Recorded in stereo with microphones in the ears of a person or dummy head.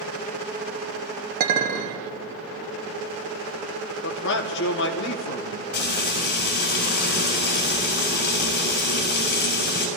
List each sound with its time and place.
1.4 s a clink: 45° right (ahead or behind), 1.0 m
4.0 s a man speaking: 65° left (ahead or behind), 1.2 m
5.7 s frying: 50° left (ahead or behind), 6 m